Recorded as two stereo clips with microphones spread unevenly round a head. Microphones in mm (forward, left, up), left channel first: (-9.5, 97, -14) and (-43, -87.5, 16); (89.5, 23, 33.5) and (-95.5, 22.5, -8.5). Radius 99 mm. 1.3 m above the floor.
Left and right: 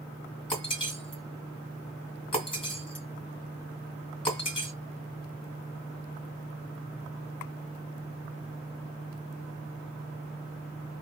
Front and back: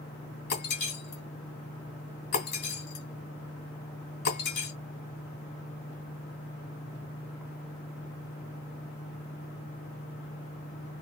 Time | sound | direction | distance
0.5 | breaking glass | 10° left | 2.5 m